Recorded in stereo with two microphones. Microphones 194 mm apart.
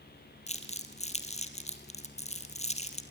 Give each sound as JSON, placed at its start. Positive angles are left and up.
{"t": 0.5, "sound": "crumpling", "side_deg": 35, "distance_m": 2.0}